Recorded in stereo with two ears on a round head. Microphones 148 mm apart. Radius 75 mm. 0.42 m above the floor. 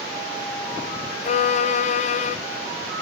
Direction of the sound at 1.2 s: 40° left (ahead or behind).